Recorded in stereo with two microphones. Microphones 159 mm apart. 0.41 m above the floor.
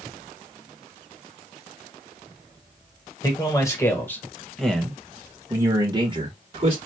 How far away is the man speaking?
About 1.7 m.